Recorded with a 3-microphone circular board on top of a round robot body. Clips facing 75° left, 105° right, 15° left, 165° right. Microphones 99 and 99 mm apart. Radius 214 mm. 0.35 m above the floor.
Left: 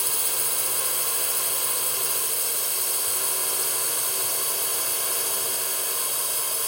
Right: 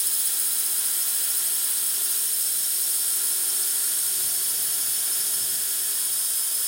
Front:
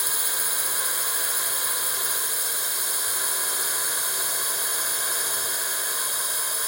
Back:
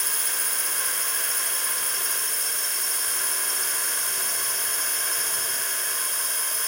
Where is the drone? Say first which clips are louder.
Left 10 dB, front 1 dB; 95° left.